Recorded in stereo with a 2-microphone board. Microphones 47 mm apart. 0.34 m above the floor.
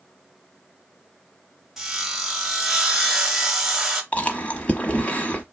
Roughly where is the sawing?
Centre.